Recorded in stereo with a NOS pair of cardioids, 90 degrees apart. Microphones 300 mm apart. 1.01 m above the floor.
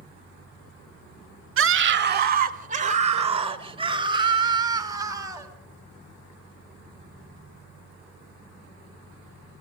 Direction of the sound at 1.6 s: 45° right.